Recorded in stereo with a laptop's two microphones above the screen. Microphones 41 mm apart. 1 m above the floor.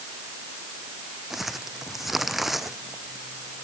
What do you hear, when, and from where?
1.3 s crumpling: 5° right (ahead or behind)